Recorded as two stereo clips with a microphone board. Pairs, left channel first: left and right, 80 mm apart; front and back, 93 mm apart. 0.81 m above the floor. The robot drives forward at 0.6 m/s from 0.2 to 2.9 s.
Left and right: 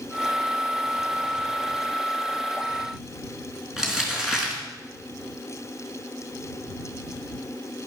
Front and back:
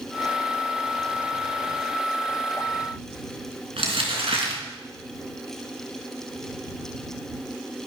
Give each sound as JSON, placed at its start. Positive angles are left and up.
{"t": 3.8, "sound": "crumpling", "azimuth_deg": -175, "distance_m": 3.5}